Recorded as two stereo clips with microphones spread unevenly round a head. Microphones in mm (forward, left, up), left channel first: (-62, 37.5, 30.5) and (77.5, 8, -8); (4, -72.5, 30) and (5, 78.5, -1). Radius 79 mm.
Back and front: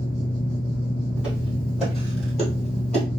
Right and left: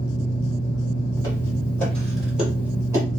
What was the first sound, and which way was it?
A fan, 140° right.